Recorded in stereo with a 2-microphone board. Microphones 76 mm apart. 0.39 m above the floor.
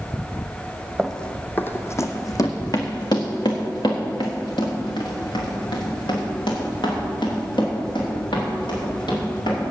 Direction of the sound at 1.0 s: Centre (ahead or behind).